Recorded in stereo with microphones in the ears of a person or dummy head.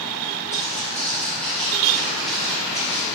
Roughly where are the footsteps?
Centre.